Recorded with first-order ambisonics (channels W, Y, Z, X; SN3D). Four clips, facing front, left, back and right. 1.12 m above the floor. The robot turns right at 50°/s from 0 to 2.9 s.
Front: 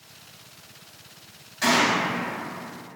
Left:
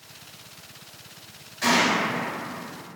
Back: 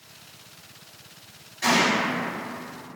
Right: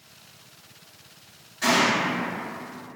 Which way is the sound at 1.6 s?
10° left.